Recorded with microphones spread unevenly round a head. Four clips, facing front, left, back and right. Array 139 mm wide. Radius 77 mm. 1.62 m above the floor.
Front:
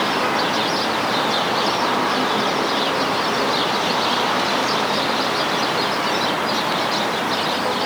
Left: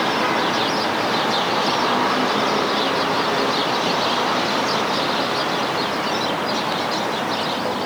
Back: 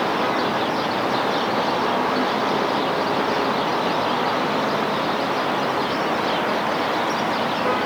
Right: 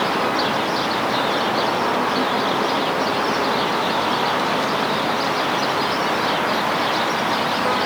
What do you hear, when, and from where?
Only background noise.